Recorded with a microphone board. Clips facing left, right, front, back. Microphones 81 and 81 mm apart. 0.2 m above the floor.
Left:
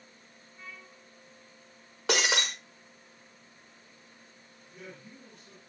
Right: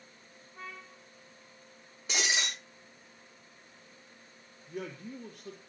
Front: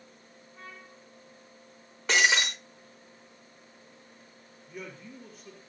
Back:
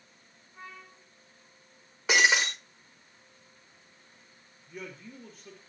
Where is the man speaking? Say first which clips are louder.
Right 8 dB, even; 90° right, 4.5 m.